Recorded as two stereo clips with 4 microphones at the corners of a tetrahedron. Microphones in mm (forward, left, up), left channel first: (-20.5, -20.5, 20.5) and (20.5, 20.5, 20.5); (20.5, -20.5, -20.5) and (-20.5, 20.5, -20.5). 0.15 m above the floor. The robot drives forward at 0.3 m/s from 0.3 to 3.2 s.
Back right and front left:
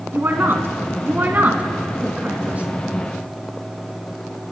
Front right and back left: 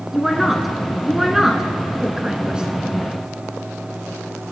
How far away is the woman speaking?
About 2 m.